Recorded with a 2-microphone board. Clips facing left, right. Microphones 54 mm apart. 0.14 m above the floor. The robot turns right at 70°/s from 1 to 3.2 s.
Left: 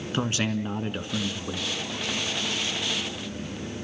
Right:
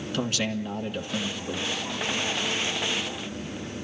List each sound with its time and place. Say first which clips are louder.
0.1 s a man speaking: left 1 dB; 80° left, 1.6 m; by 1.7 s 125° left, 1.6 m